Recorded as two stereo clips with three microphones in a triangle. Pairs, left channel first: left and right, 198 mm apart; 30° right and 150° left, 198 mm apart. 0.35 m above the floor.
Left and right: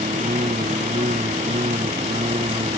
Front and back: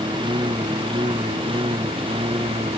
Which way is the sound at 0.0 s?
145° right.